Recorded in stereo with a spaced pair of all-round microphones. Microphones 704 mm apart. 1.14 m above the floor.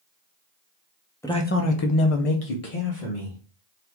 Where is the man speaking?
5° left (ahead or behind), 0.7 m; by 3.4 s 45° left (ahead or behind), 1.3 m.